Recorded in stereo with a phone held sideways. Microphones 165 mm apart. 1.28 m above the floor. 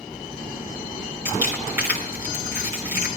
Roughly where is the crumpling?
Centre.